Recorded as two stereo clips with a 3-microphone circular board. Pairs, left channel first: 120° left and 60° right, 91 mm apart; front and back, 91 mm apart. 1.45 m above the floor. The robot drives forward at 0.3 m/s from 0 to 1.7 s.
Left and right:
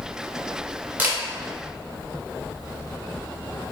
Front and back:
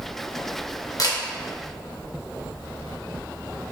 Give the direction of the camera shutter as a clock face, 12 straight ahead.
12 o'clock.